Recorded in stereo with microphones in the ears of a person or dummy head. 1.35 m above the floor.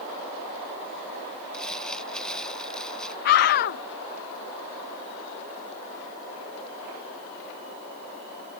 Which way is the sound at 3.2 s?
55° left (ahead or behind).